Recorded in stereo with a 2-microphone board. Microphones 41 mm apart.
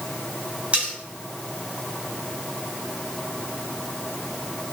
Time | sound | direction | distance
0.7 | cutlery clinking | 35° right (ahead or behind) | 3 m